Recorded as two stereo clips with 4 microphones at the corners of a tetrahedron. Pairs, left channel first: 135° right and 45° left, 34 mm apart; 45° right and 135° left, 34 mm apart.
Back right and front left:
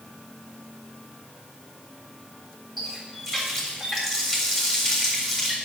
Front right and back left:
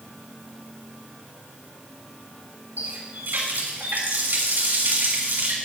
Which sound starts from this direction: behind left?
A running tap, at 2.8 s.